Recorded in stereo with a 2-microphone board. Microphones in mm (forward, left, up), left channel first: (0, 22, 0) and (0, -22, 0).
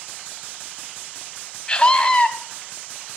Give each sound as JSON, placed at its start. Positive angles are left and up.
{"t": 1.7, "sound": "a scream", "side_deg": 20, "distance_m": 1.2}